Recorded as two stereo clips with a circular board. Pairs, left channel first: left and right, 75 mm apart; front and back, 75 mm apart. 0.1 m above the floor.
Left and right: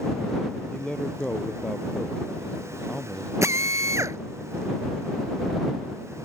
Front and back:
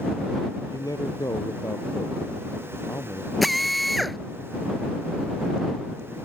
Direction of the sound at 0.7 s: 15° left.